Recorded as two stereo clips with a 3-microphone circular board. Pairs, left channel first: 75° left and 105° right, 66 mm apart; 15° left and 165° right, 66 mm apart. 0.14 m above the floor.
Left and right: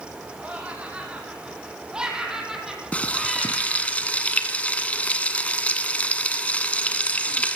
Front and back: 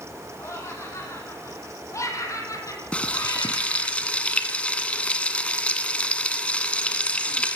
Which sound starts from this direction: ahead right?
Laughter, at 0.4 s.